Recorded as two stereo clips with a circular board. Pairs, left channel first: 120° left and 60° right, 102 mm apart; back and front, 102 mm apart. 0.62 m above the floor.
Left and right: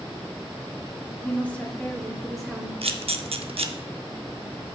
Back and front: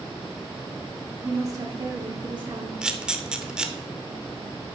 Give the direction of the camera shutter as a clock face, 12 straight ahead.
3 o'clock.